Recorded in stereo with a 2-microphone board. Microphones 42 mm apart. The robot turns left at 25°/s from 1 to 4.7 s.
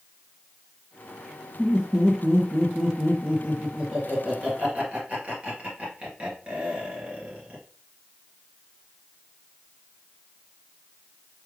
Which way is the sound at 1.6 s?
10° right (ahead or behind).